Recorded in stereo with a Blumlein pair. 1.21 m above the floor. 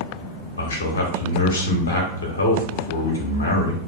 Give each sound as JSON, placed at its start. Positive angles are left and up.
{"t": 0.6, "sound": "a man speaking", "azimuth_deg": 70, "distance_m": 0.7}